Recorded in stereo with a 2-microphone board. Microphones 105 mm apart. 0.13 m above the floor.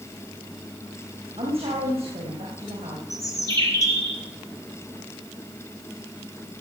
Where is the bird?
30° left (ahead or behind), 3.5 m.